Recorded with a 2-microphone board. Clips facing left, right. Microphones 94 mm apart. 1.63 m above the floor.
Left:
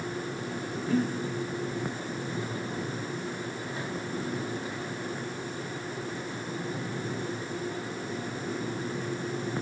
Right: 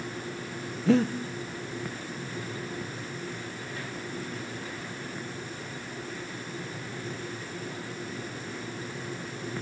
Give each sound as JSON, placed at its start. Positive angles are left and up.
{"t": 0.9, "sound": "breathing", "side_deg": -85, "distance_m": 1.4}